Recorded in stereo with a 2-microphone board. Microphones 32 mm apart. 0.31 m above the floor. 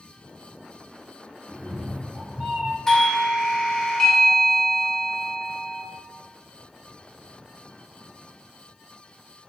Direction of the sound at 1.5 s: 65° right (ahead or behind).